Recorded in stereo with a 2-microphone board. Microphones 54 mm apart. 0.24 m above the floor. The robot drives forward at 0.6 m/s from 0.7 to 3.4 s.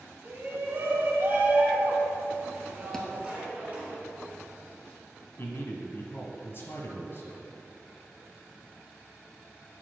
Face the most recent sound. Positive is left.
turn(degrees=50)  # may be behind; listen again after turning